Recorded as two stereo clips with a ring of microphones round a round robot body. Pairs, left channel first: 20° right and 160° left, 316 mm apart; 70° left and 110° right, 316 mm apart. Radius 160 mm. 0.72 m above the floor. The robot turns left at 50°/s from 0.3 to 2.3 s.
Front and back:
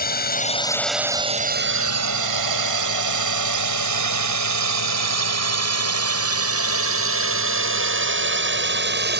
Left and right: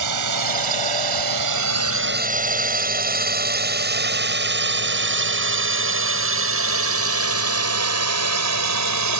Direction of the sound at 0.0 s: 85° right.